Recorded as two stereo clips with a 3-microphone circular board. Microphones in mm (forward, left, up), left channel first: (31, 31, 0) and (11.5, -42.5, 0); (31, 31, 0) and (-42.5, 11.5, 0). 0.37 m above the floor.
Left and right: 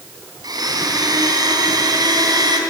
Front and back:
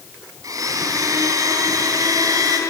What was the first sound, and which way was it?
A blender, 130° right.